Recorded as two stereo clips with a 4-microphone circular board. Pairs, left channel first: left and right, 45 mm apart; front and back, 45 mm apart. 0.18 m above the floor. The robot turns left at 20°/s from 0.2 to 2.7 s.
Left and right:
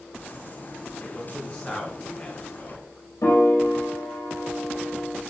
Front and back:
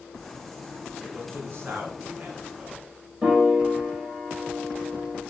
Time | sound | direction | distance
1.0 | a man speaking | 170° left | 2.5 m
3.2 | a piano | 110° left | 3 m